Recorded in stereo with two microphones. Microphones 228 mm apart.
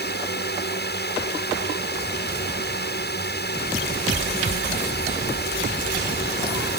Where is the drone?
45° left (ahead or behind).